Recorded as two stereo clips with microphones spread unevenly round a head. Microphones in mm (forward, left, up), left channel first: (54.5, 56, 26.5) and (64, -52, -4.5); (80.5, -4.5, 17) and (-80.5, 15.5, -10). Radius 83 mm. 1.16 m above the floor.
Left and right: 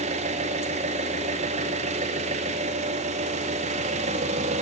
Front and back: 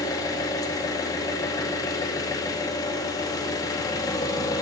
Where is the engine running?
80° right, 1.8 m.